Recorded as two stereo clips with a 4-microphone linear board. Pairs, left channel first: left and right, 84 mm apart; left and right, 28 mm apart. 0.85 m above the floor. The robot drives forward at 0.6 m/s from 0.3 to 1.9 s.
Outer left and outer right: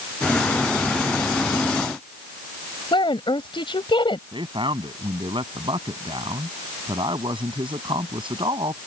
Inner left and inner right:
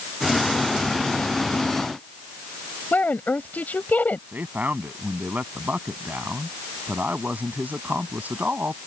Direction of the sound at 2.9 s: 85° left.